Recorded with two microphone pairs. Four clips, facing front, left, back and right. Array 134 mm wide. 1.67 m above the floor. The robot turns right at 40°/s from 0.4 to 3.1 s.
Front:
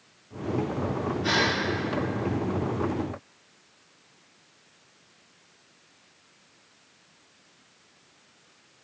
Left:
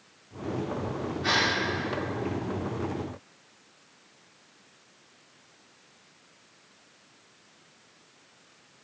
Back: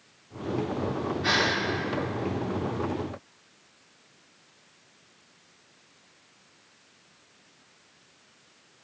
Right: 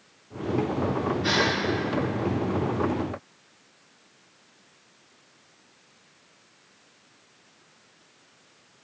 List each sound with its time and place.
1.2 s a gasp: 150° left, 2.5 m; by 1.5 s 160° left, 2.5 m